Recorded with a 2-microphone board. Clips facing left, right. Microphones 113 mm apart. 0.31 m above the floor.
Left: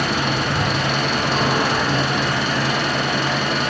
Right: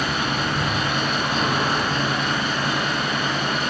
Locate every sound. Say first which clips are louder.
0.0 s an engine running: left 3 dB; 75° left (ahead or behind), 4 m